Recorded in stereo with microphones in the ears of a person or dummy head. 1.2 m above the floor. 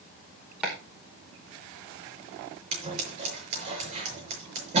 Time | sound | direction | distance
0.6 | chopping | 5° right (ahead or behind) | 5 m
2.7 | scissors | 35° right (ahead or behind) | 6 m